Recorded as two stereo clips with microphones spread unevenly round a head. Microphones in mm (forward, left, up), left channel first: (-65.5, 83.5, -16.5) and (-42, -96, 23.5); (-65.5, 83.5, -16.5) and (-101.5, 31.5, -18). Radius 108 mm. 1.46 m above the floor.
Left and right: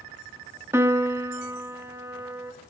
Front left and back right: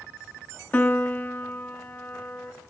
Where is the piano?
15° right, 1.3 m.